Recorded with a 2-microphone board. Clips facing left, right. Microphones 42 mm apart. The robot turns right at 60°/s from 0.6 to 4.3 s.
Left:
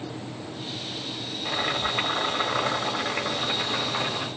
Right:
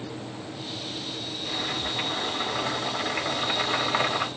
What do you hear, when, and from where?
1.4 s boiling: 70° left, 1.8 m; by 4.3 s 120° right, 1.8 m